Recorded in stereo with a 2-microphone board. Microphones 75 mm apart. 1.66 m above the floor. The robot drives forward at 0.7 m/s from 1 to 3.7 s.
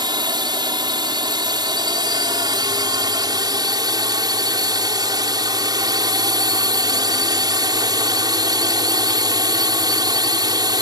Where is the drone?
85° right; by 10.8 s 65° right (ahead or behind).